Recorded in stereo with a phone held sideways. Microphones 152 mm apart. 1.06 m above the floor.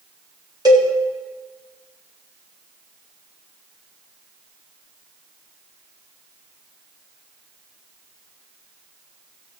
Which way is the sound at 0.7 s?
25° right (ahead or behind).